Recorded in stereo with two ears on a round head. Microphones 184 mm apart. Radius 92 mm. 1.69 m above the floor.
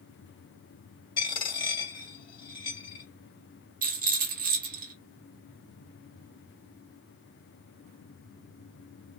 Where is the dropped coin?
25° left (ahead or behind), 2 m.